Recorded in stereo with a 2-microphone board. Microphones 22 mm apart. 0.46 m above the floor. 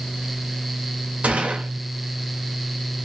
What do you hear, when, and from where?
1.2 s a gunshot: 70° right (ahead or behind), 0.7 m